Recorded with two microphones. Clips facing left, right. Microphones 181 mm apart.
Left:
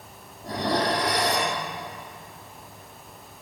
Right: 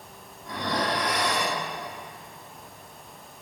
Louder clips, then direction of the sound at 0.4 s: Left 4 dB; 35° left (ahead or behind).